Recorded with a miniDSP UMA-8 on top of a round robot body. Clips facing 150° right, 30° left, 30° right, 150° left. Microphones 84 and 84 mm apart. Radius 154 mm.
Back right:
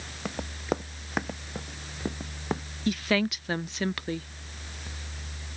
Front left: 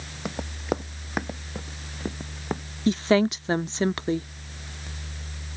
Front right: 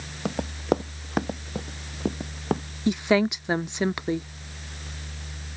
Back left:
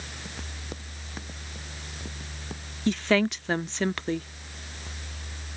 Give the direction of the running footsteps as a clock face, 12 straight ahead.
2 o'clock.